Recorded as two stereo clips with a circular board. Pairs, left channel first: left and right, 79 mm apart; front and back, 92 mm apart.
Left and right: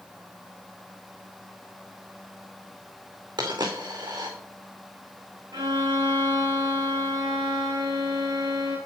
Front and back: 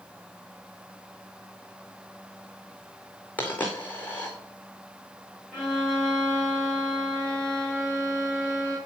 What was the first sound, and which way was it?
A dropped coin, 70° right.